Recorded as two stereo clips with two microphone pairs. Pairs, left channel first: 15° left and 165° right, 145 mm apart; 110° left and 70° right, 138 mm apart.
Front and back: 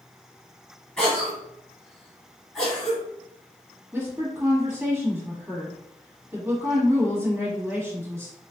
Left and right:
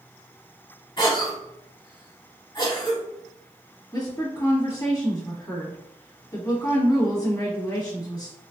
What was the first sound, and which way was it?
A cough, 95° left.